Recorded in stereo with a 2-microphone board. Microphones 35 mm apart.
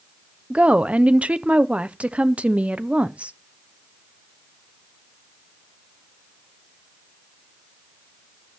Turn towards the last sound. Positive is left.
turn(degrees=-40)  # may be behind; listen again after turning